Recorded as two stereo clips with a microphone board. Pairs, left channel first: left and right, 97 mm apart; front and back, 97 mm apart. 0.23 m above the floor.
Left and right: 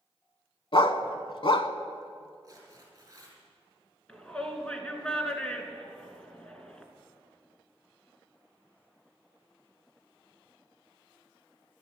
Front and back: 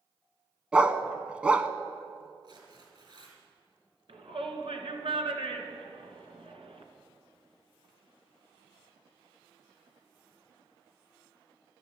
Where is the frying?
I don't hear frying.